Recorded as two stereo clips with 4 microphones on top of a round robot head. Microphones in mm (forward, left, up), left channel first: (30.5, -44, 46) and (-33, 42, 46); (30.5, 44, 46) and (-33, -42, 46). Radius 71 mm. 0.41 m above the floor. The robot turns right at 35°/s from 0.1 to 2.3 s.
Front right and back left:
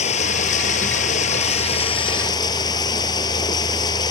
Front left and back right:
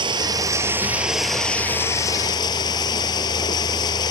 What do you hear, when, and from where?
0.0 s running water: 75° right; by 4.1 s straight ahead